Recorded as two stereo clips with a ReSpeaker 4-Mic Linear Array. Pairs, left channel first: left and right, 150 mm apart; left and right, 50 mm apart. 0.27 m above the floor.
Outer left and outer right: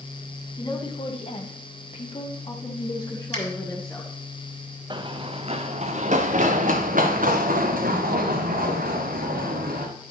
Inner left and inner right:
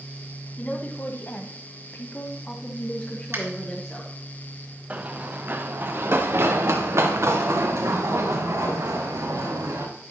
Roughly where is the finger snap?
Right.